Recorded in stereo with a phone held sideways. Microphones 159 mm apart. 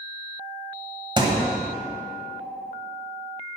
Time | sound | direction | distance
1.2 | a thud | 30° right (ahead or behind) | 1.4 m